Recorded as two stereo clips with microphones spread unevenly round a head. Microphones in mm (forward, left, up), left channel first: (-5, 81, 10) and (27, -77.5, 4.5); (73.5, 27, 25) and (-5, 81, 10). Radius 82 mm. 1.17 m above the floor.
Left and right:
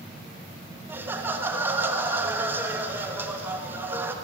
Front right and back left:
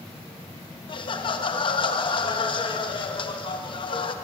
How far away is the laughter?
About 1.2 m.